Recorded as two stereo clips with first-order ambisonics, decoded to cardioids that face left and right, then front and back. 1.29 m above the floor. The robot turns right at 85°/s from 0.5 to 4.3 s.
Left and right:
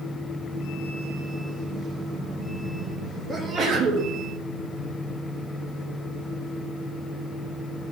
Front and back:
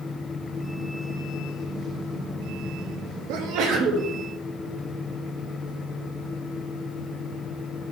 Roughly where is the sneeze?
Behind.